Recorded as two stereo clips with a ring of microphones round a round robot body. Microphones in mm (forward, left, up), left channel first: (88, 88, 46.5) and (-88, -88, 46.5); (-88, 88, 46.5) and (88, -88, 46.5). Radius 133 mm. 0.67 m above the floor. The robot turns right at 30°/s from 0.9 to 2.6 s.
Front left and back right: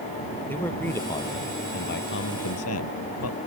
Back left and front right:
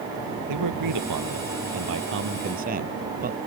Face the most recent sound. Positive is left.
turn(degrees=15)